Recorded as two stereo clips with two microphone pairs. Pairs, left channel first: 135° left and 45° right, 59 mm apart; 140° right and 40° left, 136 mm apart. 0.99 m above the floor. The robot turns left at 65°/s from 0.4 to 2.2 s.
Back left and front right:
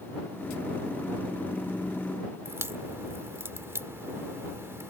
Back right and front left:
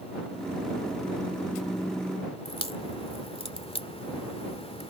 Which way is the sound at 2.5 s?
90° right.